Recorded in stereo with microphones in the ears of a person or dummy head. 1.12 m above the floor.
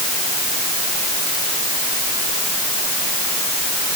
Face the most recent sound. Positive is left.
No sound to turn to.